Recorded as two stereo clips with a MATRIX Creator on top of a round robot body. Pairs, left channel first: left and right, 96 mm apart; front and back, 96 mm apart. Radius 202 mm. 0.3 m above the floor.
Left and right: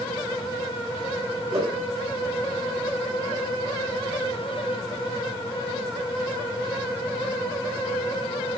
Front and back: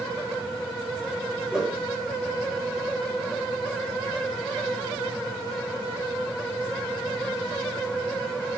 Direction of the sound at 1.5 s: 100° right.